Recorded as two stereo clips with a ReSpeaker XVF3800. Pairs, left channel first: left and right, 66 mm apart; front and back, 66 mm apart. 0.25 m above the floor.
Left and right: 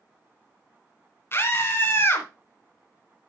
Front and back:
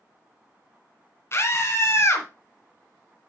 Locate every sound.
1.3 s a scream: 40° left, 1.8 m